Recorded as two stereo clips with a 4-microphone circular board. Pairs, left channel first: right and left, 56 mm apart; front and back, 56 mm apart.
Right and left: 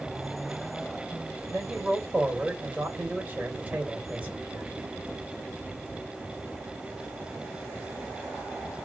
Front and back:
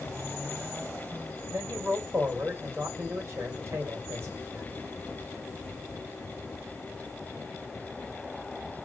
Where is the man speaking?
150° left, 2.5 m.